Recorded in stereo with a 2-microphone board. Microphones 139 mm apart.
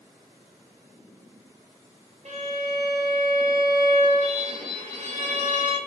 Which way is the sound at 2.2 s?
55° right (ahead or behind).